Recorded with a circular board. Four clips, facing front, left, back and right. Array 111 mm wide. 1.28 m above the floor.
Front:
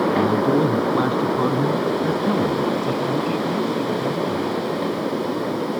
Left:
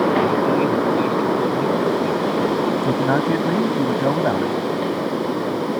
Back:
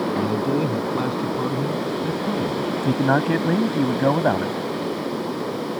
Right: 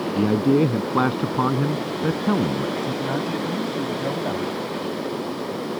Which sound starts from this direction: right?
A man speaking, at 0.1 s.